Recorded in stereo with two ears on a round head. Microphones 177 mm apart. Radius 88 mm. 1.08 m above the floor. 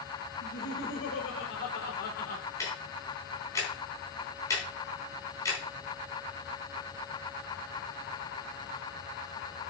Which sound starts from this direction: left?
Laughter, at 0.4 s.